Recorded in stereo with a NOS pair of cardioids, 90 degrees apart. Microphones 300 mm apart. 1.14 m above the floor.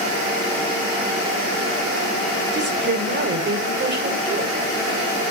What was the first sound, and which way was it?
A woman speaking, 40° right.